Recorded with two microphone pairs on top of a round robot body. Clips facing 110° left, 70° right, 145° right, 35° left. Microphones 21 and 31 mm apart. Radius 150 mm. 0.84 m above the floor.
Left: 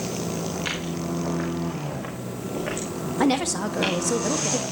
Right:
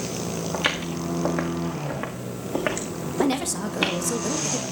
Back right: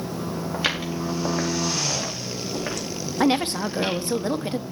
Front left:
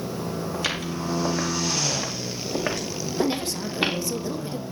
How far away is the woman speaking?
About 1.5 m.